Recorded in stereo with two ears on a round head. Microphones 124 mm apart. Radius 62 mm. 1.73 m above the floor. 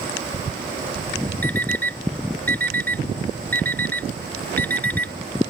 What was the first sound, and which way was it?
An alarm clock, 15° left (ahead or behind).